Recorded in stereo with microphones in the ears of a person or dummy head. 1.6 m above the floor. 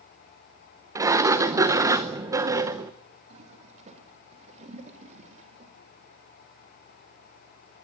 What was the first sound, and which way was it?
A sliding door, 15° right (ahead or behind).